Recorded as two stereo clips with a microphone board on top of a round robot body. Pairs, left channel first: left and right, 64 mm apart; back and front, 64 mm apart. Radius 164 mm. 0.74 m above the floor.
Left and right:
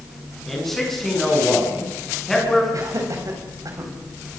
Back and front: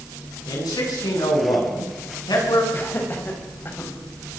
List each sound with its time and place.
0.5 s a man speaking: 175° left, 8 m
2.7 s laughter: 120° right, 6 m